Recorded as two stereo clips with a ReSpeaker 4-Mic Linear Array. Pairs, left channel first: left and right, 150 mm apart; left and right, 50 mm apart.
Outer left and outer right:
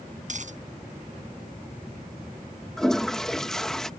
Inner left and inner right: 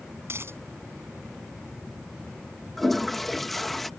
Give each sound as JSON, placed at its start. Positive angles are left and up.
{"t": 0.2, "sound": "a dropped coin", "side_deg": -55}
{"t": 2.8, "sound": "a toilet flushing", "side_deg": 5}